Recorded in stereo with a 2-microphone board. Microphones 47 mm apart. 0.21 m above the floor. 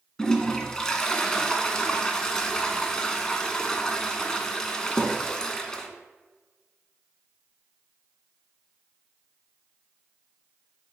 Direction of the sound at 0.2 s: 15° left (ahead or behind).